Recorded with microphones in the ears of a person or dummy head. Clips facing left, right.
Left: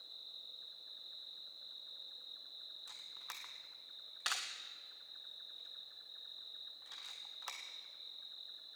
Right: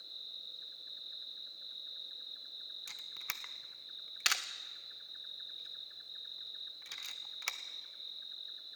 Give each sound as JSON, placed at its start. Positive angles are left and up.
{"t": 0.0, "sound": "an insect", "side_deg": -30, "distance_m": 0.9}
{"t": 2.9, "sound": "a camera shutter", "side_deg": -40, "distance_m": 0.8}